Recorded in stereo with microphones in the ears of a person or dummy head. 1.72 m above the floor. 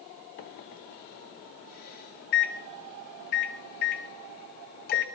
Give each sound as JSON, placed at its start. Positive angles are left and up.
{"t": 0.4, "sound": "a microwave", "side_deg": 45, "distance_m": 0.7}